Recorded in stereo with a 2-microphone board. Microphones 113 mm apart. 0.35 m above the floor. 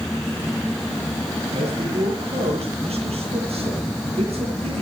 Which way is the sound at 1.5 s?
65° right (ahead or behind).